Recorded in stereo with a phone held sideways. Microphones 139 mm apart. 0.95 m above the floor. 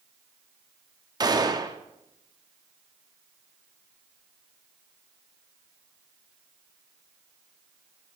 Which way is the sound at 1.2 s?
30° right (ahead or behind).